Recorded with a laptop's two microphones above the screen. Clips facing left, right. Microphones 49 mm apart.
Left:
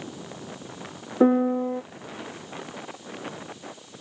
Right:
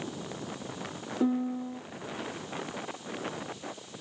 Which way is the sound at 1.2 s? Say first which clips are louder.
Left 10 dB; 55° left (ahead or behind).